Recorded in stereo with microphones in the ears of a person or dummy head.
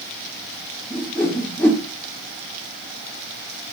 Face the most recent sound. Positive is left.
turn(degrees=5)  # may be behind; listen again after turning